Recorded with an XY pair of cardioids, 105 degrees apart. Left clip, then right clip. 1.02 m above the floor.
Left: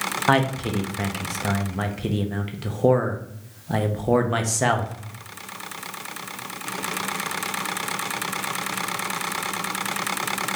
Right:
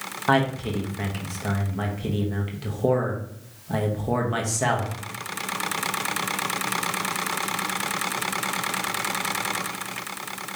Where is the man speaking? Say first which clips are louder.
Even; 25° left, 0.7 m.